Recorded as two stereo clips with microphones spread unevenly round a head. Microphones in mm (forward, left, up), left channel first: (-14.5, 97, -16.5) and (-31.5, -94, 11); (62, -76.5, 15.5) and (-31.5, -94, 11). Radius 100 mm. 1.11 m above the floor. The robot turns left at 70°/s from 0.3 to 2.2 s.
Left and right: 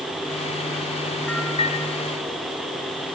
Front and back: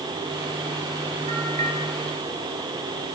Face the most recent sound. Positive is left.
turn(degrees=105)